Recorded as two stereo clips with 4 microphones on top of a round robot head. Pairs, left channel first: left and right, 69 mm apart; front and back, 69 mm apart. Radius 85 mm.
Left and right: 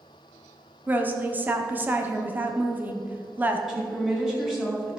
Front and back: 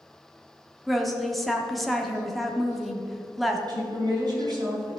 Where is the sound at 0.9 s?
90° right, 1.3 m.